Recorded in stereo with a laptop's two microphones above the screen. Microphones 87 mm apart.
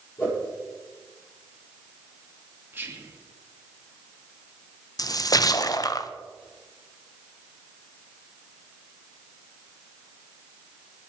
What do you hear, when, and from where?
0.2 s a whoosh: 30° left (ahead or behind), 8 m
2.7 s whispering: 25° right (ahead or behind), 1.9 m
5.0 s a splash: 45° left (ahead or behind), 0.7 m